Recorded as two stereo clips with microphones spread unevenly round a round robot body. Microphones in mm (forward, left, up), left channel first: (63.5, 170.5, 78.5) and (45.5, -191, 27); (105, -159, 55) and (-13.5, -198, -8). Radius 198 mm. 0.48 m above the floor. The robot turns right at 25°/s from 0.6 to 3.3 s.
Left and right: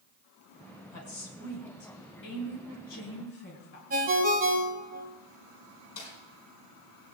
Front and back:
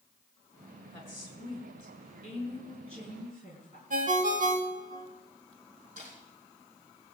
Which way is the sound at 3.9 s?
160° right.